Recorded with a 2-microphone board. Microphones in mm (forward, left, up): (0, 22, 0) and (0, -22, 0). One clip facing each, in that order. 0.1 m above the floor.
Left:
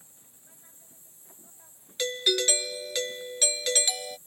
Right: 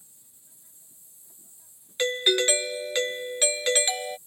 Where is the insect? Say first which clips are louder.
Left 4 dB; 40° left (ahead or behind).